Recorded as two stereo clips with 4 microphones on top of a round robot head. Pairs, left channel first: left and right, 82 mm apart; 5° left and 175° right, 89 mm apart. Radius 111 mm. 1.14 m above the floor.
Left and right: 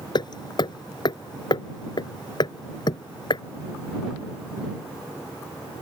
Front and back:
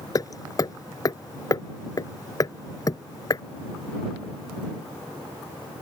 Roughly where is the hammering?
Ahead left.